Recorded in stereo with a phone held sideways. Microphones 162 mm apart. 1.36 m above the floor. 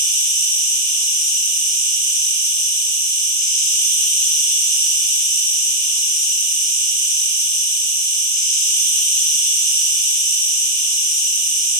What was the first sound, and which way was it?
An insect, 20° left (ahead or behind).